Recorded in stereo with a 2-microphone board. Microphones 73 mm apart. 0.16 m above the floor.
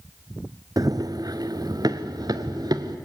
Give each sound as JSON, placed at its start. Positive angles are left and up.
{"t": 0.8, "sound": "running footsteps", "side_deg": -55, "distance_m": 0.5}